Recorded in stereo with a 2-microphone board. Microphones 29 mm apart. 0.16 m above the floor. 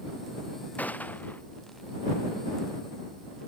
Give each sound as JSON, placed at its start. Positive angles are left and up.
{"t": 0.8, "sound": "a gunshot", "side_deg": 80}